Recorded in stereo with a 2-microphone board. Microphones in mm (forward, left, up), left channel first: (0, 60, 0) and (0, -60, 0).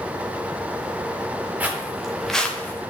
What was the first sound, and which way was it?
Footsteps, 15° right (ahead or behind).